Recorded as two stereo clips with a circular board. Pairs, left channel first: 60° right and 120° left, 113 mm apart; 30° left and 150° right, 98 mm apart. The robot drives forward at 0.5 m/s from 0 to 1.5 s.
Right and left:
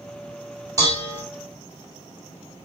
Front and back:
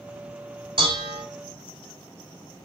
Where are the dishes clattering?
175° left, 2 m.